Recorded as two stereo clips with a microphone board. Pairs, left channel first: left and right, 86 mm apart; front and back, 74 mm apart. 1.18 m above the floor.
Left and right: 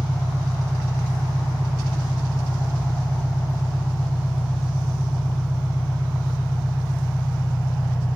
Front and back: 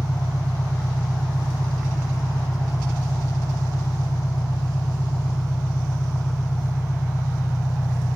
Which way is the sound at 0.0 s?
5° left.